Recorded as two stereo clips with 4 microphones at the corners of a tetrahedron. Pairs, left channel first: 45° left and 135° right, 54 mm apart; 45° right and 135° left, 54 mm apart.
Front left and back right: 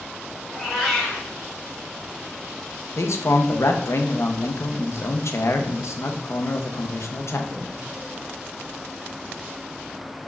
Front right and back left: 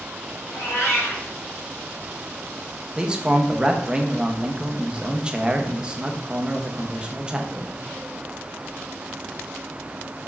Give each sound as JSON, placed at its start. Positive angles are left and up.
{"t": 0.5, "sound": "a cat meowing", "azimuth_deg": -35, "distance_m": 1.5}
{"t": 3.0, "sound": "a man speaking", "azimuth_deg": 65, "distance_m": 0.6}